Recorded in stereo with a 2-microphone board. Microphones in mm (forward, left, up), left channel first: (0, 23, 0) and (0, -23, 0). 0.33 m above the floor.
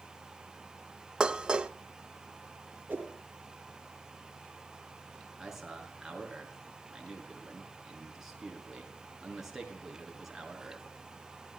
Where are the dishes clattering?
20° right (ahead or behind), 0.8 m.